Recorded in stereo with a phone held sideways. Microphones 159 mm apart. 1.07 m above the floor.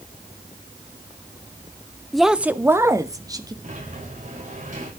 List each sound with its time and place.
2.1 s a woman speaking: centre (ahead or behind), 0.6 m; by 3.5 s 25° right (ahead or behind), 1.4 m
3.6 s a sliding door: 60° right (ahead or behind), 5.5 m